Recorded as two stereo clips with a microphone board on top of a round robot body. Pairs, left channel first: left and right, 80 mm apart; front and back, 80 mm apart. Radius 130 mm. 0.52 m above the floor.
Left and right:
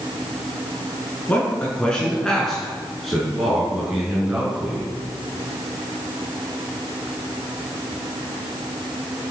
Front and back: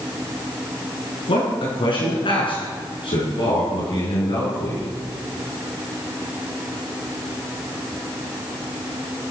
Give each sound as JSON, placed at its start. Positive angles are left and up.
{"t": 1.3, "sound": "a man speaking", "azimuth_deg": 15, "distance_m": 7.0}